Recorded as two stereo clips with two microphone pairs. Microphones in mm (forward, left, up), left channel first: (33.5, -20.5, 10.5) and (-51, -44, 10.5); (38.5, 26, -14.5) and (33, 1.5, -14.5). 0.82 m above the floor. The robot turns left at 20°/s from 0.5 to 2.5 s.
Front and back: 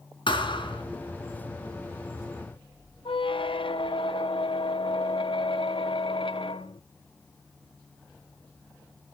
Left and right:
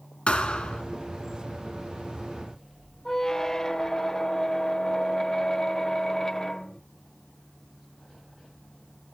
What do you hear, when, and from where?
0.3 s a thud: 35° left, 3 m; by 0.8 s 30° left, 3 m
3.0 s a squeak: 5° left, 0.7 m